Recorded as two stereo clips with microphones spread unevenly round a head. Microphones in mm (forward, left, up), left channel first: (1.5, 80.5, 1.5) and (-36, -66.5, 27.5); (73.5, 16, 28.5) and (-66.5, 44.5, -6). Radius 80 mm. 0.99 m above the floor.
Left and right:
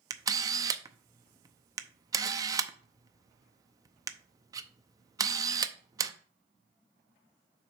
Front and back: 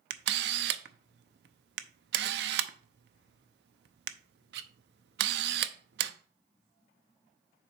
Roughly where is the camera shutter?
Behind.